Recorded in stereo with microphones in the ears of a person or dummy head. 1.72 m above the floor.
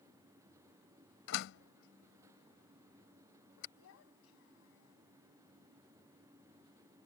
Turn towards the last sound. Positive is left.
turn(degrees=85)